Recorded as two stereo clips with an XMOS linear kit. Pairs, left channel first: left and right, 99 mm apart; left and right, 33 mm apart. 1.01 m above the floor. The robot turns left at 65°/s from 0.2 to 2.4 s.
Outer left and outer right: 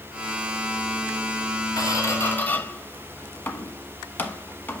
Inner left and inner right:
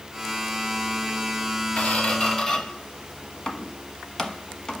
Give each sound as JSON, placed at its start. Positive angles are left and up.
{"t": 1.8, "sound": "a squeak", "side_deg": 40, "distance_m": 1.2}